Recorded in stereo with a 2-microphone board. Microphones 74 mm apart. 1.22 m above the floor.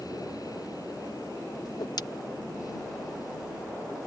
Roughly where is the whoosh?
Left.